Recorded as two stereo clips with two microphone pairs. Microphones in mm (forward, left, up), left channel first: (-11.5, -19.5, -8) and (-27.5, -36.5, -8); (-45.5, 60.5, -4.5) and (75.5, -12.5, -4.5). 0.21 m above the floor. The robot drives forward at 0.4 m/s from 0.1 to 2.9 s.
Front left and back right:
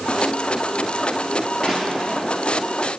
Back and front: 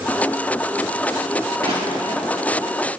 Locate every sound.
1.6 s crushing: 75° right, 3 m; by 2.2 s 80° right, 3 m